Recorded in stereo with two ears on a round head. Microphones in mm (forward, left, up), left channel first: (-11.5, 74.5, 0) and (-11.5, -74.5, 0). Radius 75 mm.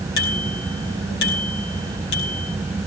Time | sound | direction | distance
0.2 | a bicycle bell | 65° left (ahead or behind) | 5 m